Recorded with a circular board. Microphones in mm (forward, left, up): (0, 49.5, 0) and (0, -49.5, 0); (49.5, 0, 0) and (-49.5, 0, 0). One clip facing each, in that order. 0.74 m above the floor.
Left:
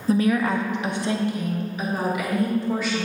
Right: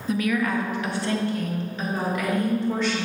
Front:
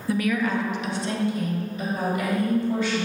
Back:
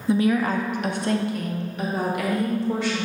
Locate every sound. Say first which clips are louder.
0.1 s a woman speaking: left 3 dB, back 3 dB; 120° left, 0.5 m; by 3.1 s 175° left, 2.0 m